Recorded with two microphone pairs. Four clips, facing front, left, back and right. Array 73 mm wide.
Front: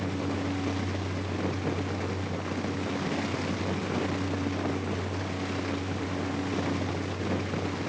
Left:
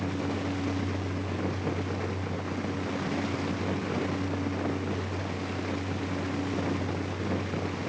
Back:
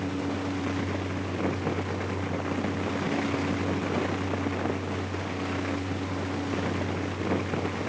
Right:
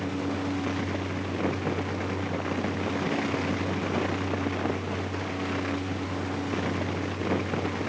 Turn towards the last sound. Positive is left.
No sound to turn to.